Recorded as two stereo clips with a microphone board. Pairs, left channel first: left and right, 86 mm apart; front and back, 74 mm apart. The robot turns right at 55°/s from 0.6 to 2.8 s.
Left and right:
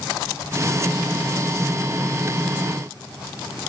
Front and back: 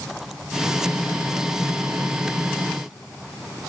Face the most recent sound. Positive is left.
No sound to turn to.